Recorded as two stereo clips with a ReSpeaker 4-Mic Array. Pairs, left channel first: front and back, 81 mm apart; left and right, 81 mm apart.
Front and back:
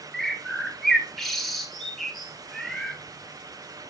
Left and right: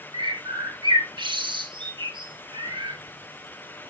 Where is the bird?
85° right, 1.7 m.